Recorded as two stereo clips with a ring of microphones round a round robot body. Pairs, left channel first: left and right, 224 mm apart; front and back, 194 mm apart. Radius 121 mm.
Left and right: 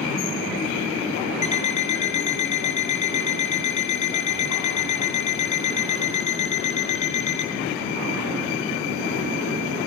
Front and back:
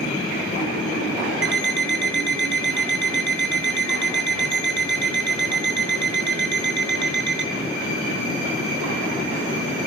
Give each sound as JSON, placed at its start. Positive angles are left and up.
{"t": 1.4, "sound": "an alarm clock", "azimuth_deg": 150, "distance_m": 3.5}